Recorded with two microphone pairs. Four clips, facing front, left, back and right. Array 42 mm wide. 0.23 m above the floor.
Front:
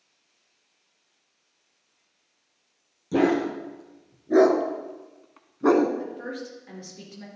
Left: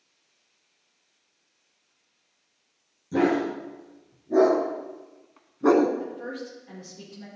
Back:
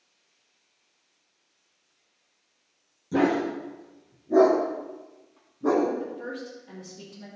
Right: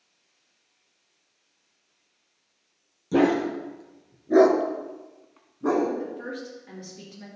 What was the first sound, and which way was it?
A dog barking, 60° right.